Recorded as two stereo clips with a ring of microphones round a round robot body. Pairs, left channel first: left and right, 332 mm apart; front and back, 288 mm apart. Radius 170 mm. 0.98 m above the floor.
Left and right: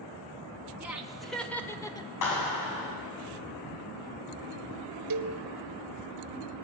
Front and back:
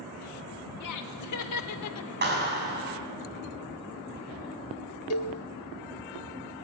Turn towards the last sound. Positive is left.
turn(degrees=-50)